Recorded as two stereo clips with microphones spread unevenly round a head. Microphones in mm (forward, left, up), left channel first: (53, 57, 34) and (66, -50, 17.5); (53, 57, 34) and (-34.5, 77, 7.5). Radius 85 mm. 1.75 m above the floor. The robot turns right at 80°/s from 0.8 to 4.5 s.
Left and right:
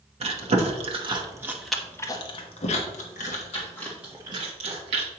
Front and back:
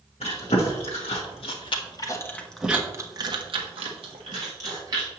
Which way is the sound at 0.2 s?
65° right.